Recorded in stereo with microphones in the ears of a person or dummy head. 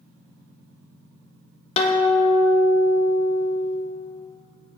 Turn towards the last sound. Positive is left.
turn(degrees=35)  # may be behind; listen again after turning